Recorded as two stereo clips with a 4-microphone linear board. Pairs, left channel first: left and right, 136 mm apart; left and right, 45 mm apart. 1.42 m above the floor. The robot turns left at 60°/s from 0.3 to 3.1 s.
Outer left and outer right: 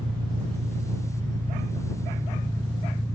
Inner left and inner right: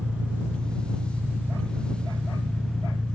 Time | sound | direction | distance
0.0 | an engine running | 30° right | ?